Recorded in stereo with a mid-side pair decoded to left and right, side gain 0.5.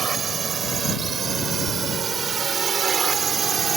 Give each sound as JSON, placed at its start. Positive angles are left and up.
{"t": 0.0, "sound": "a drone", "azimuth_deg": -40}